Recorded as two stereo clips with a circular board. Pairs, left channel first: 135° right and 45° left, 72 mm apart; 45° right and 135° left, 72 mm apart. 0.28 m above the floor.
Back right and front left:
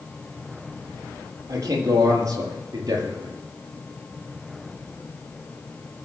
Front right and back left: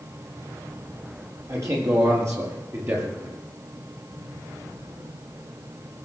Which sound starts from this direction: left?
A man speaking, at 1.5 s.